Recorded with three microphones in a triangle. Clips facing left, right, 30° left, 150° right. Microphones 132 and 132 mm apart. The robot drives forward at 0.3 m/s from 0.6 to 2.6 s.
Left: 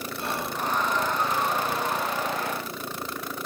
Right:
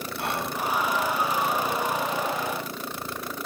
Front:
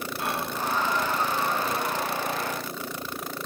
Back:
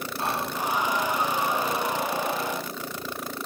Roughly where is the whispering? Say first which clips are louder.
Right 2 dB, back 2 dB; right.